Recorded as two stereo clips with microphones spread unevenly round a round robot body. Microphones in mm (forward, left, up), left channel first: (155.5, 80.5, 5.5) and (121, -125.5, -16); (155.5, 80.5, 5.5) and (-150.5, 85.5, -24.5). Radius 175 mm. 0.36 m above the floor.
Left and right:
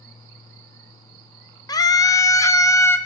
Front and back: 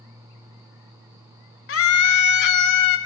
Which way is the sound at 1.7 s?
10° left.